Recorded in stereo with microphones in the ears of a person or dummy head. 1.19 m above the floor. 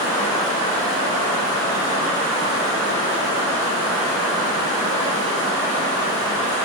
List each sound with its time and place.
0.0 s running water: 50° right (ahead or behind), 1.9 m